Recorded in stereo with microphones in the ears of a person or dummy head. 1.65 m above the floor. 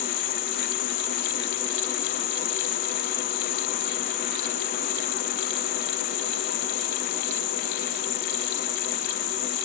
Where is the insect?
50° left (ahead or behind).